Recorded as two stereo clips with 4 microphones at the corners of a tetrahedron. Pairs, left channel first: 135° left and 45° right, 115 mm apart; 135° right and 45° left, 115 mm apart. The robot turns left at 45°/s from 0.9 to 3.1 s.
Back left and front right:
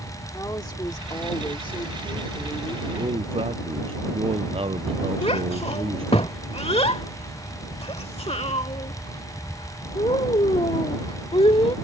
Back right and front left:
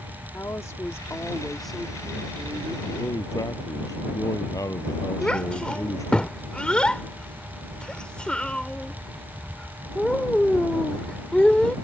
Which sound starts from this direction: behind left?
A child speaking, at 5.2 s.